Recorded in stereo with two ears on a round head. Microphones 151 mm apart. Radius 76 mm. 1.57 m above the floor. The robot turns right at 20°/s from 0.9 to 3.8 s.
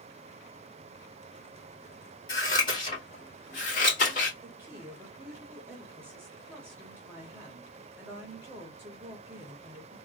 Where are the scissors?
20° left (ahead or behind), 2 m; by 4.3 s 50° left (ahead or behind), 2 m.